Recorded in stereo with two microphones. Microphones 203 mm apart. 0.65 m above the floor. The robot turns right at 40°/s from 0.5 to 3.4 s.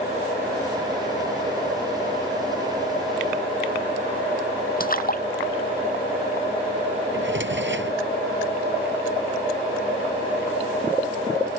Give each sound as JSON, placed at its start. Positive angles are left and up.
{"t": 4.8, "sound": "a splash", "side_deg": 45}
{"t": 7.1, "sound": "a drawer", "side_deg": -70}